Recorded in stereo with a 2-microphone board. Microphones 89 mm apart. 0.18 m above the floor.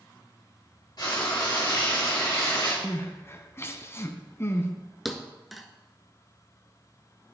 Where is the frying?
50° left (ahead or behind), 3.5 m.